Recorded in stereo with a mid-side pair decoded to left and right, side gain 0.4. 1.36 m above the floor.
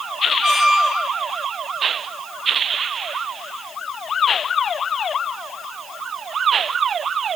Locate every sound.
0.4 s a squeak: 25° right, 1.1 m